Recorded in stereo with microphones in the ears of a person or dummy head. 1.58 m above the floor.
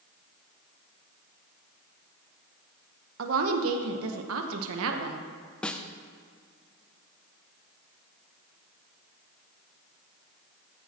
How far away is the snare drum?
About 0.5 m.